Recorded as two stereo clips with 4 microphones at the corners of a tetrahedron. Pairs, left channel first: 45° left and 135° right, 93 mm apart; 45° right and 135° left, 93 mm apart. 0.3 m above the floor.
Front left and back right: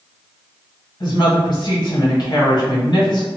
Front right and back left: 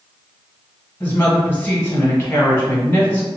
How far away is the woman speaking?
About 1.8 m.